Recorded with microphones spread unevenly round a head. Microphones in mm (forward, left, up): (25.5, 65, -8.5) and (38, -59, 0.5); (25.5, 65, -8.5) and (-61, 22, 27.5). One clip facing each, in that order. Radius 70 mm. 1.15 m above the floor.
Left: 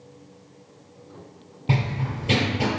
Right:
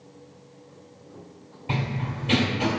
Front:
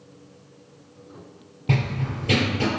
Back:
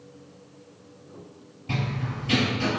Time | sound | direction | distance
1.7 | running footsteps | 60° left | 1.6 m